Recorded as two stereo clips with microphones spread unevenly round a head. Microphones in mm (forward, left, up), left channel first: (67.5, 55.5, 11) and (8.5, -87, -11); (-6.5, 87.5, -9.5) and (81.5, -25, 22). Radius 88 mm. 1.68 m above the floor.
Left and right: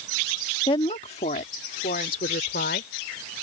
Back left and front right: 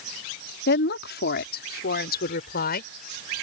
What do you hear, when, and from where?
0.7 s a woman speaking: 130° left; by 2.9 s 110° left